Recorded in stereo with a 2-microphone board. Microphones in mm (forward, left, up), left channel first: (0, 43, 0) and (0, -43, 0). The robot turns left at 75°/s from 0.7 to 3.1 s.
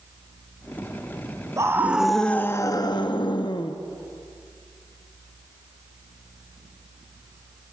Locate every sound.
1.6 s a scream: 140° right, 1.2 m; by 3.8 s 105° left, 1.2 m